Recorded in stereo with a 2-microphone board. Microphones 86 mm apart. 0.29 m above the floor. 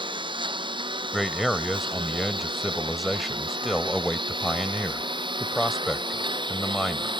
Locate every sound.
0.0 s a lawn mower: 70° right (ahead or behind); by 7.2 s 65° right (ahead or behind)
1.1 s a man speaking: centre (ahead or behind)